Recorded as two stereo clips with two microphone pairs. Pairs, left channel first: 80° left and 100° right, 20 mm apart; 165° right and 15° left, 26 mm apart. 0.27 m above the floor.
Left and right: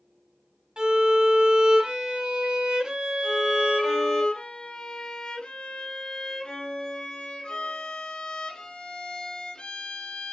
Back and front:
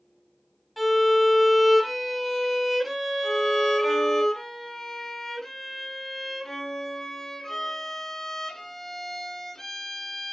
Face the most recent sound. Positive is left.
turn(degrees=120)